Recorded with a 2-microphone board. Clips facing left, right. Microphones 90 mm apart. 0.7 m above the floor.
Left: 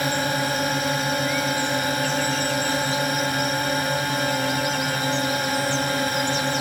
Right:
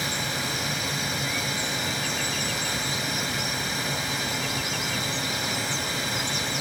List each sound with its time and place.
0.0 s a drone: 50° left (ahead or behind)